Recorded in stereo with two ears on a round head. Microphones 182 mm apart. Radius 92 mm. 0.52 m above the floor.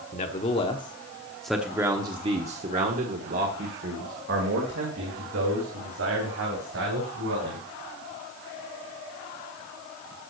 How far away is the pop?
I don't hear a pop.